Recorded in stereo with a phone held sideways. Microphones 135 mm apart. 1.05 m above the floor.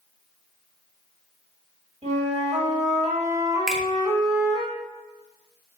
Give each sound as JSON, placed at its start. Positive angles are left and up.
{"t": 2.0, "sound": "a flute", "side_deg": -65, "distance_m": 1.1}
{"t": 3.7, "sound": "a finger snap", "side_deg": -5, "distance_m": 0.6}